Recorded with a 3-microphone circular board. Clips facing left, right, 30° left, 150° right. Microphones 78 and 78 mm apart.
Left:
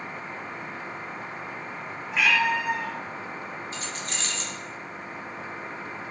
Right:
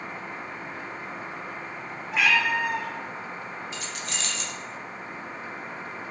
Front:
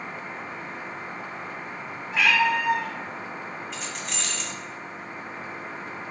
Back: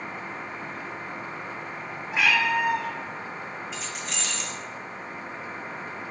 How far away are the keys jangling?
About 0.6 m.